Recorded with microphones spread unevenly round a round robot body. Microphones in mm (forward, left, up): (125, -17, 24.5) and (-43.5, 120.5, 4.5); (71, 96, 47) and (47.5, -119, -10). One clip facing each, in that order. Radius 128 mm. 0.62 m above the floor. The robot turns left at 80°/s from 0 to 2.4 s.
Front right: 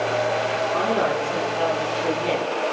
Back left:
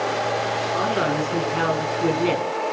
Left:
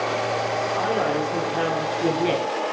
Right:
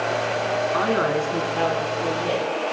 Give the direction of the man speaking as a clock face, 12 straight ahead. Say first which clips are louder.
Even, right 1 dB; 4 o'clock.